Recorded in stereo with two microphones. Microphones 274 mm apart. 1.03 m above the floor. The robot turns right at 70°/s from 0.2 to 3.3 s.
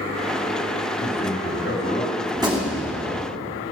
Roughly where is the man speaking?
Left.